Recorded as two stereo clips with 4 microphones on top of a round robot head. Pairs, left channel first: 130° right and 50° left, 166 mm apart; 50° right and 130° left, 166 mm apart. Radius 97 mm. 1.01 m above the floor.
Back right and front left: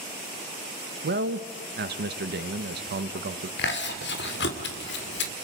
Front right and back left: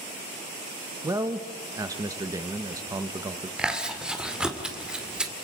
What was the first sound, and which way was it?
A man speaking, 60° left.